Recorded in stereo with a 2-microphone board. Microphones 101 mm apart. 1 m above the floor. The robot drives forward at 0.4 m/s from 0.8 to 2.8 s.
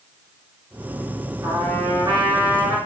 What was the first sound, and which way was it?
A trumpet, 30° right (ahead or behind).